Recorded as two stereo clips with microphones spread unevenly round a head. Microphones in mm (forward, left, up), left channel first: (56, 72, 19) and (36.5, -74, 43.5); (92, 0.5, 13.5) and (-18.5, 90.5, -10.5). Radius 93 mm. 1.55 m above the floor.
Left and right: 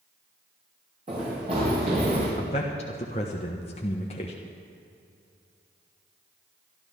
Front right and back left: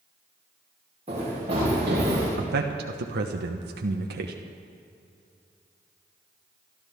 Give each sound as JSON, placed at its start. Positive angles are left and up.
{"t": 1.1, "sound": "running footsteps", "azimuth_deg": -155, "distance_m": 6.0}
{"t": 2.4, "sound": "a man speaking", "azimuth_deg": 145, "distance_m": 1.0}